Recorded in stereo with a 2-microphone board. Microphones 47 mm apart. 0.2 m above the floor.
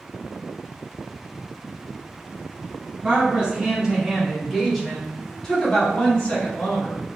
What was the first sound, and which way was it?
A woman speaking, 25° right (ahead or behind).